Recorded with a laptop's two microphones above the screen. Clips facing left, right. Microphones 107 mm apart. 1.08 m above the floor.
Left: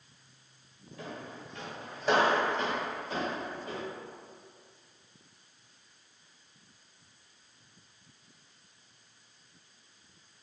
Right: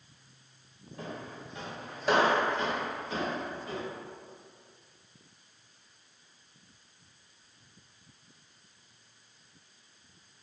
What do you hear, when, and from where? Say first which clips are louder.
1.0 s footsteps: right 1 dB; 35° right (ahead or behind), 1.2 m; by 3.8 s 50° left (ahead or behind), 1.7 m